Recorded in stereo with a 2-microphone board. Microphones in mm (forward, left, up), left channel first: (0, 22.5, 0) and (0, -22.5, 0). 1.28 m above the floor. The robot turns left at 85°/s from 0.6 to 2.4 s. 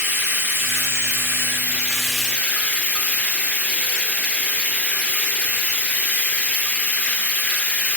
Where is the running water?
50° right, 3 m; by 8.0 s 155° left, 3 m.